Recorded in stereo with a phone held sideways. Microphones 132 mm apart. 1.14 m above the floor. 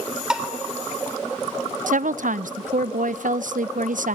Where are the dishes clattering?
5° right (ahead or behind), 3 m.